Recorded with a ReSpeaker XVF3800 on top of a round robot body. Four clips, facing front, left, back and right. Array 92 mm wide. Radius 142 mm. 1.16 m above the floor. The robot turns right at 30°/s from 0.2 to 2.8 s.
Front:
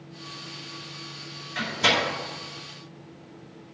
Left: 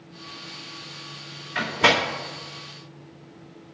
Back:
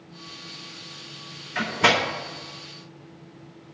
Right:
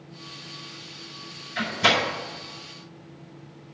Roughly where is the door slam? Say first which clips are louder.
Left 2 dB, back 3 dB; behind left.